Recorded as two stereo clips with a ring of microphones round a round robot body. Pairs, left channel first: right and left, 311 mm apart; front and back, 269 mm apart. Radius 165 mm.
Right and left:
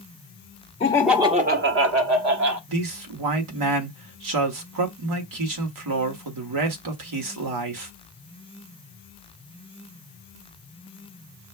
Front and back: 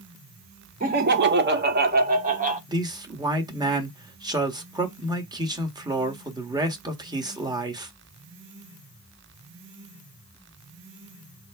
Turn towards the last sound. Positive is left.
turn(degrees=105)